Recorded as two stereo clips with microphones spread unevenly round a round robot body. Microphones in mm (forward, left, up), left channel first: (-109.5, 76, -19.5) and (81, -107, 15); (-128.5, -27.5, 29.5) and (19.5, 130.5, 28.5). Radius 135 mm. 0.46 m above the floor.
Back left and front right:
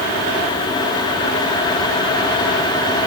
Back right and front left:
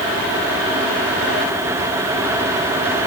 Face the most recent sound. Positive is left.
No sound to turn to.